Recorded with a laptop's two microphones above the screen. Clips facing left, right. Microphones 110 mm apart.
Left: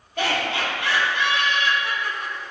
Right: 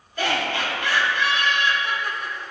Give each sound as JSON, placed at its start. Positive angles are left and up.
{"t": 0.2, "sound": "laughter", "side_deg": 70, "distance_m": 1.0}